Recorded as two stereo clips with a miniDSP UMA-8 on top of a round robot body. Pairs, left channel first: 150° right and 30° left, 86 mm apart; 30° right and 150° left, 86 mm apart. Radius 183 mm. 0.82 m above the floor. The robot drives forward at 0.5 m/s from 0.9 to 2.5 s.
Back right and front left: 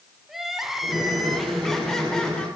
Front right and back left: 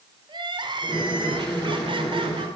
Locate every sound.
0.3 s crying: 115° left, 3 m; by 2.5 s 130° left, 3.5 m